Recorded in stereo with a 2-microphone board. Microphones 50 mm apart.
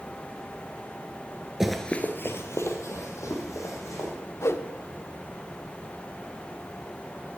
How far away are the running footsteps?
About 0.7 m.